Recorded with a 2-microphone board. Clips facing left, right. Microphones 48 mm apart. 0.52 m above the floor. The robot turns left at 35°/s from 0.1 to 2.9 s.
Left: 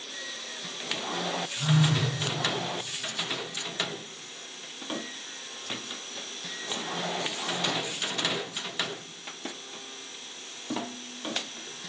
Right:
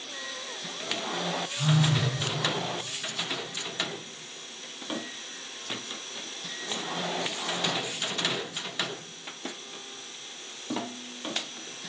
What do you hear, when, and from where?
1.6 s a phone buzzing: 25° left (ahead or behind), 1.3 m; by 2.0 s 15° left (ahead or behind), 1.3 m